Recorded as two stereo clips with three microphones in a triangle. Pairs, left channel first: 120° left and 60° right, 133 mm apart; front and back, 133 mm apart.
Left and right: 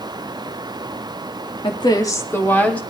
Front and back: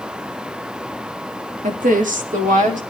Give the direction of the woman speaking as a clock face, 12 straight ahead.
6 o'clock.